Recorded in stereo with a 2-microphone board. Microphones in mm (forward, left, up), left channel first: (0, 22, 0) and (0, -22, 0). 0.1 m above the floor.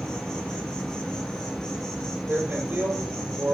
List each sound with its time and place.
0.0 s an insect: 15° left (ahead or behind), 3.5 m
2.3 s a man speaking: 45° right (ahead or behind), 4 m